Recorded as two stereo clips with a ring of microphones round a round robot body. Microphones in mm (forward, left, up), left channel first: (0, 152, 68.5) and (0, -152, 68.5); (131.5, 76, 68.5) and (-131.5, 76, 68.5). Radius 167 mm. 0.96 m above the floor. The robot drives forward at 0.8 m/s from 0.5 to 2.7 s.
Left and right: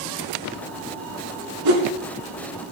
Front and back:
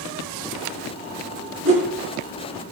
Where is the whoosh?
125° right, 4 m.